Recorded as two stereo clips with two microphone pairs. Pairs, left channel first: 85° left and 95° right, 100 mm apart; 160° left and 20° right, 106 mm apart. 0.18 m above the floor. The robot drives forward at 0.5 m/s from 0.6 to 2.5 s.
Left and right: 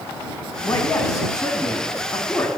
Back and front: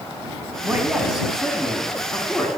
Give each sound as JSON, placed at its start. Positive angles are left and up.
{"t": 0.6, "sound": "a man speaking", "azimuth_deg": 45, "distance_m": 1.3}